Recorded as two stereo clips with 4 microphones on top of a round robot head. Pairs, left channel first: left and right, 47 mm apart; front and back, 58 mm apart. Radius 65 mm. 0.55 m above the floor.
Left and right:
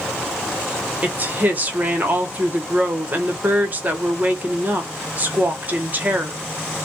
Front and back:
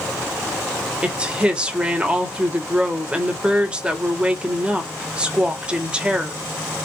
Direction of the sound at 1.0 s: 120° right.